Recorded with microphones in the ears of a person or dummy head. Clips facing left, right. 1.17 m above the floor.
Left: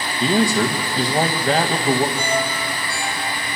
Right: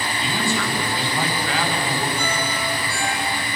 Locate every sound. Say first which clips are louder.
0.2 s a man speaking: left 9 dB; 35° left (ahead or behind), 1.6 m
2.2 s a ringtone: left 3 dB; 50° left (ahead or behind), 8.5 m